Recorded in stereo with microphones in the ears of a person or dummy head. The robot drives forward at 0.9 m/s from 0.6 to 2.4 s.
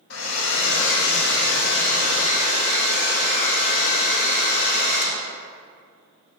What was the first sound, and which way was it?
A hair dryer, 80° left.